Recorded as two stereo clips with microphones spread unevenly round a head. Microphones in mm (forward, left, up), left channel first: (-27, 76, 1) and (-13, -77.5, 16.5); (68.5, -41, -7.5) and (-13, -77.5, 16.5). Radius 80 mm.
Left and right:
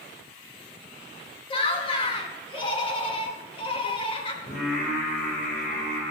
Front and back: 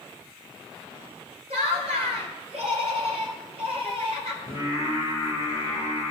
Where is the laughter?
150° left, 1.3 m.